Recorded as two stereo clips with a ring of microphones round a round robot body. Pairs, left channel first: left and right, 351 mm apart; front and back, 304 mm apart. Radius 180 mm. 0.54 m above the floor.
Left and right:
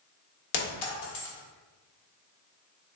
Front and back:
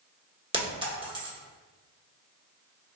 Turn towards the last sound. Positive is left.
turn(degrees=105)